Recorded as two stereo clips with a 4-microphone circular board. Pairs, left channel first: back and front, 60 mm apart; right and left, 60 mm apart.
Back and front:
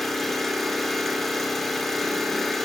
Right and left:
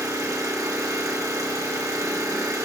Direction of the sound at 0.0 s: 95° left.